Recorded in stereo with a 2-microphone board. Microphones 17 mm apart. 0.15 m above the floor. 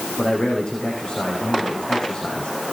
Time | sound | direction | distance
0.2 | a man speaking | 40° left (ahead or behind) | 6.5 m